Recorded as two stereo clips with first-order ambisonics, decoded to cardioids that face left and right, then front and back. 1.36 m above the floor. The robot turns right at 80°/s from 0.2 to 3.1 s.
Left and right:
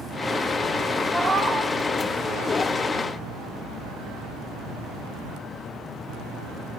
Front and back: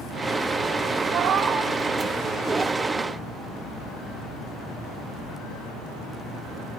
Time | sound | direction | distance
1.1 | a cat meowing | 170° left | 1.2 m